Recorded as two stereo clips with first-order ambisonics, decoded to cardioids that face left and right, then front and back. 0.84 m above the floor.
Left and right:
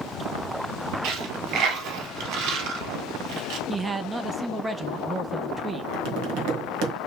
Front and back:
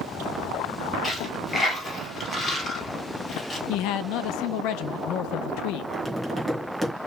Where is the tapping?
100° right, 1.4 m.